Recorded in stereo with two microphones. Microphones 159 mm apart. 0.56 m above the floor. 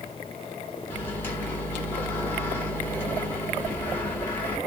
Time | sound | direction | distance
0.9 | a microwave | 15° left (ahead or behind) | 1.6 m